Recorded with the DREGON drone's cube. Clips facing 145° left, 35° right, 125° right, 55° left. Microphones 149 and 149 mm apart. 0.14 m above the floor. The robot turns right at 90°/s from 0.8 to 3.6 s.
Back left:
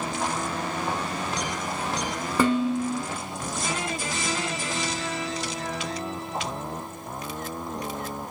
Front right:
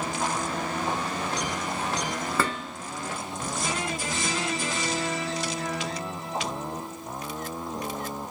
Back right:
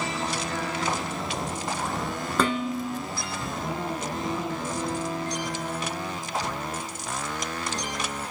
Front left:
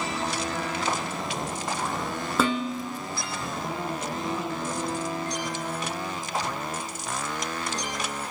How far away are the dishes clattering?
About 0.7 m.